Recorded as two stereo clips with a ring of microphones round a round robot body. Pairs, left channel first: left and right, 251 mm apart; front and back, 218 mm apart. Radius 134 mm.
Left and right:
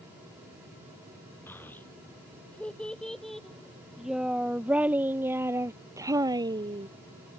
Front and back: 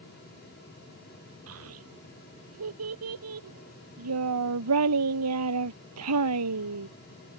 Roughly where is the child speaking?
Behind.